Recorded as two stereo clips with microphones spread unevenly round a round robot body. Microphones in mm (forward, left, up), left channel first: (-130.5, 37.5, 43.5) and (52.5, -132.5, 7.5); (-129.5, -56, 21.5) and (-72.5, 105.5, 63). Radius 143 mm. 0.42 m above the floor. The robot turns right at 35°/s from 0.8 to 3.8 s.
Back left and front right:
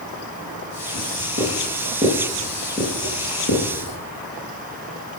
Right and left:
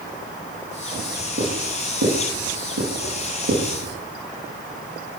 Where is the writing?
10° right, 8.5 m; by 3.9 s 90° left, 8.5 m.